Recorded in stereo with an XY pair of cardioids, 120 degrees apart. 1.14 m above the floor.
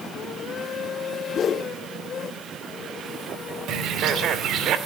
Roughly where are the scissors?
I don't hear scissors.